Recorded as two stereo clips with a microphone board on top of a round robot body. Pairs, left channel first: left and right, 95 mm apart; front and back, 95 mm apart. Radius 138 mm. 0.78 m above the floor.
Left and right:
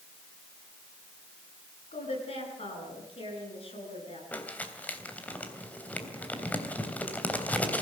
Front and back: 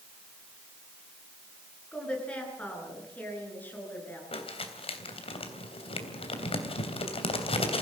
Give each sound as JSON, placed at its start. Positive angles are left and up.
{"t": 1.9, "sound": "a woman speaking", "azimuth_deg": 80, "distance_m": 10.0}
{"t": 4.3, "sound": "crumpling", "azimuth_deg": 15, "distance_m": 3.0}